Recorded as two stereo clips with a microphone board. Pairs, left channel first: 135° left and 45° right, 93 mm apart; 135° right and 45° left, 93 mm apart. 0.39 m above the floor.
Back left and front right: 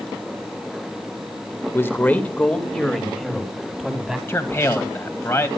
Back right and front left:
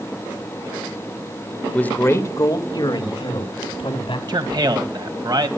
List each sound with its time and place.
1.7 s a man speaking: 165° left, 1.6 m; by 4.2 s 130° right, 3.5 m
4.3 s a man speaking: 75° left, 2 m